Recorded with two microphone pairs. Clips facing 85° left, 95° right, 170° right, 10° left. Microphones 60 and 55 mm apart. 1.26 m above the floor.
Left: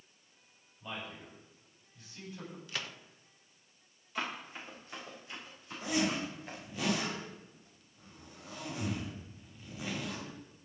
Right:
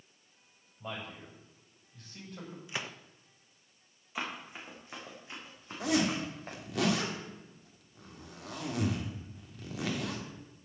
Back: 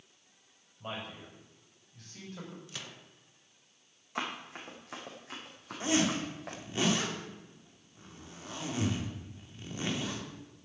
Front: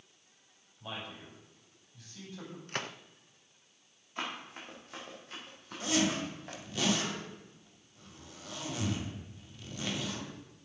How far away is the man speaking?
About 7.5 m.